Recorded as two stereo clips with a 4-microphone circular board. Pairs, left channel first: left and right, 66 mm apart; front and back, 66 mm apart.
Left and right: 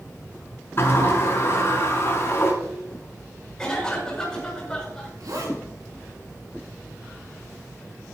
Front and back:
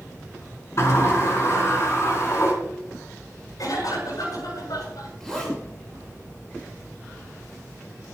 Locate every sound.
0.8 s a sliding door: 40° left, 5.5 m
3.6 s a cough: 10° left, 7.5 m
5.2 s a zipper: 80° right, 5.5 m